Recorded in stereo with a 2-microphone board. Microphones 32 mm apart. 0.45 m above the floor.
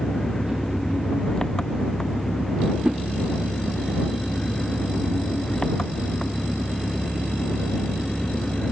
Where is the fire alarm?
No fire alarm in this recording.